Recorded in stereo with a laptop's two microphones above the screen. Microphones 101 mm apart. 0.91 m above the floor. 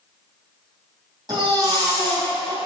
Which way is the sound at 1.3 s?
40° right (ahead or behind).